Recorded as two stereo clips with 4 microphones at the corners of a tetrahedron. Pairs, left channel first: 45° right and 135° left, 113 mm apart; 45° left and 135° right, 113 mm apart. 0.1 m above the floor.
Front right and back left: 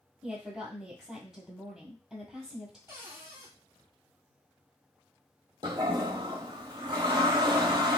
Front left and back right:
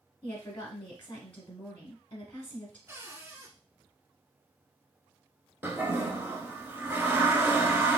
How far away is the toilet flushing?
About 0.6 m.